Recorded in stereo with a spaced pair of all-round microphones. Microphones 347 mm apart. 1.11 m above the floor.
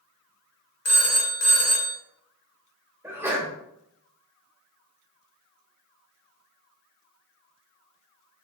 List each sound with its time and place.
0.8 s a phone ringing: 45° left (ahead or behind), 0.5 m
3.0 s a sneeze: 5° right (ahead or behind), 1.1 m